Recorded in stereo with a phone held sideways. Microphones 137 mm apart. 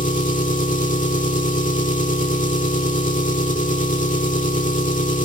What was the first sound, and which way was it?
An engine running, 70° left (ahead or behind).